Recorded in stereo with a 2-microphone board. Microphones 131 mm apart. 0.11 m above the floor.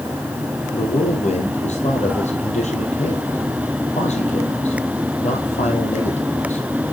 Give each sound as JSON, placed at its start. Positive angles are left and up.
{"t": 0.7, "sound": "a man speaking", "side_deg": 60, "distance_m": 3.5}